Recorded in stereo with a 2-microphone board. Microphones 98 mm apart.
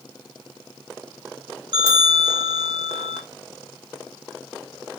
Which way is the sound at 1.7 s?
55° right (ahead or behind).